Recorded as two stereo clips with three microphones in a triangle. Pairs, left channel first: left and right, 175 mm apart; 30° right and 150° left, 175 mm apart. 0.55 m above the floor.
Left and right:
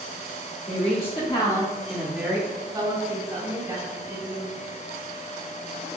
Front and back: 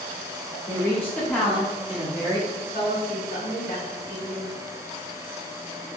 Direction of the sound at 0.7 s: 40° left.